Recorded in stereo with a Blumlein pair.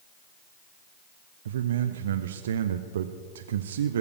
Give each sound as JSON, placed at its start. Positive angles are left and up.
{"t": 1.4, "sound": "a man speaking", "azimuth_deg": -60, "distance_m": 0.6}